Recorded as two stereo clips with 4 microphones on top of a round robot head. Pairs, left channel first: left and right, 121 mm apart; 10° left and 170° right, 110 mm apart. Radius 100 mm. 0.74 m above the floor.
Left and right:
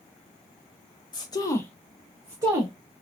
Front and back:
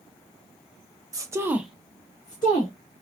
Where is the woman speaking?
135° left, 0.9 m; by 2.7 s 35° right, 1.3 m.